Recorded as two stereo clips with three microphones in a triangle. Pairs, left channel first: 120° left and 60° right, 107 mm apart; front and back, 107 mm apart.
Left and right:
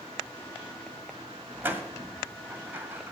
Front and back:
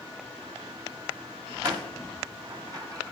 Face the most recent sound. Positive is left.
turn(degrees=-130)